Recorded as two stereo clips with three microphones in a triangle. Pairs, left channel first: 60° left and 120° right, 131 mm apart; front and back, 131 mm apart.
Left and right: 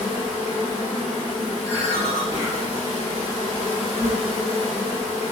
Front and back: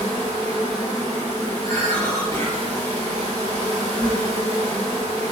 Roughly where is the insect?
Ahead.